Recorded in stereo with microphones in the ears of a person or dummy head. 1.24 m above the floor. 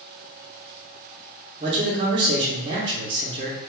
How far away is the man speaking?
About 0.7 m.